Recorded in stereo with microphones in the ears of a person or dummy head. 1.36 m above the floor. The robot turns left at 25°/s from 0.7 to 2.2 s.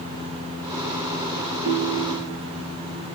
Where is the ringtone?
35° right (ahead or behind), 0.9 m; by 2.4 s 25° right (ahead or behind), 0.9 m.